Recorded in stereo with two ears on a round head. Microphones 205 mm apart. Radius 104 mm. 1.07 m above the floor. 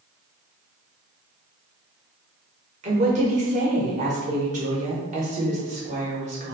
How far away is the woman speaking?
About 1.1 m.